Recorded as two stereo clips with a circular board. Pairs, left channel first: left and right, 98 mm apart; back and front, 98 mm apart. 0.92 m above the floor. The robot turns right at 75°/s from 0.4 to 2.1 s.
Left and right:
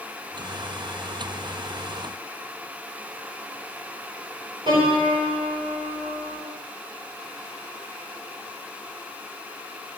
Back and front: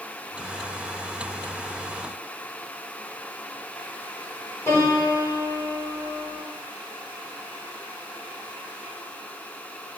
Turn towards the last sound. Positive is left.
turn(degrees=-120)